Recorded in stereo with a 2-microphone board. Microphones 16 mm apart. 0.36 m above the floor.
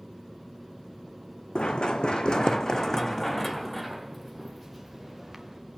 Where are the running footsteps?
70° left (ahead or behind), 1.0 m; by 5.6 s 10° right (ahead or behind), 2.5 m.